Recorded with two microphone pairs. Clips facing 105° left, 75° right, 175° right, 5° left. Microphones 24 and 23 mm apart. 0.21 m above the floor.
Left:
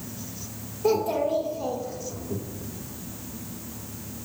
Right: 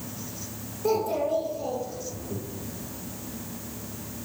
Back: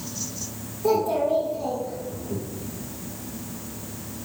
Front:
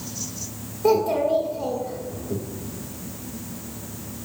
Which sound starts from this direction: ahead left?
A child speaking, at 0.8 s.